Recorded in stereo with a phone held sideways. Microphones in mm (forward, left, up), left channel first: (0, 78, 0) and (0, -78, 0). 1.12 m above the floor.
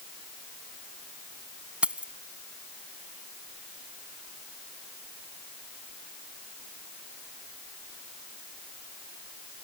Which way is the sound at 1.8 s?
5° right (ahead or behind).